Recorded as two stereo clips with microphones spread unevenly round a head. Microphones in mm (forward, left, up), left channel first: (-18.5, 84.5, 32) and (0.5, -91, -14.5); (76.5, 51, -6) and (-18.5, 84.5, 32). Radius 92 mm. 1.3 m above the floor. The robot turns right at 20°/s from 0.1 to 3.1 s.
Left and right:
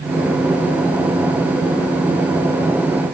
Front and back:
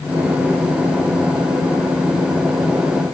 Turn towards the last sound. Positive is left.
No sound to turn to.